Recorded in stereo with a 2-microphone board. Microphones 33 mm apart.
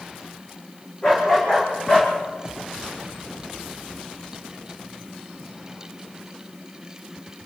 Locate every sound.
1.0 s a dog barking: 30° left (ahead or behind), 8 m; by 2.1 s 20° left (ahead or behind), 8 m